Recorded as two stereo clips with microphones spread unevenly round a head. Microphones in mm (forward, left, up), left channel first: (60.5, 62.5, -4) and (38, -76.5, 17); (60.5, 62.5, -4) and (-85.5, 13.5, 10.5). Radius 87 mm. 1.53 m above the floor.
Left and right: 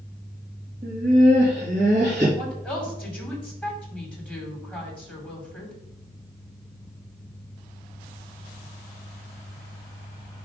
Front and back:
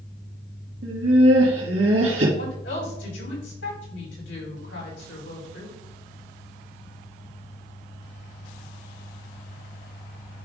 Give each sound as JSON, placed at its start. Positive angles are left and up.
{"t": 0.8, "sound": "laughter", "azimuth_deg": -150, "distance_m": 3.0}
{"t": 2.4, "sound": "a woman speaking", "azimuth_deg": 0, "distance_m": 4.5}